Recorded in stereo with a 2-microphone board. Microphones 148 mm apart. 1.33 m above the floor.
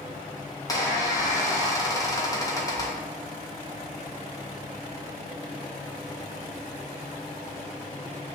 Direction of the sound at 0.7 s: 25° left (ahead or behind).